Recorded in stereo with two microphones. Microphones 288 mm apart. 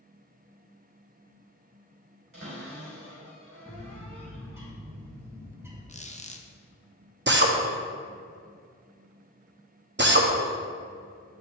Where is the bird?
10° right (ahead or behind), 1.1 m.